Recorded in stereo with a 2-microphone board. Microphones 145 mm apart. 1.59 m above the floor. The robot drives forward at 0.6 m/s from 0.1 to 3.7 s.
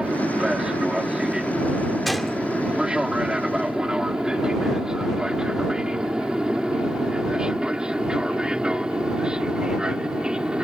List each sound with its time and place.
0.0 s an aircraft: 5° right (ahead or behind)
2.0 s a gunshot: centre (ahead or behind)